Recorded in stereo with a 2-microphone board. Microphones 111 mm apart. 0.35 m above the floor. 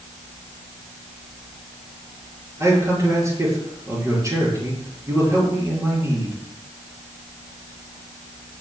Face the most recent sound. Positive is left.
turn(degrees=-25)  # may be behind; listen again after turning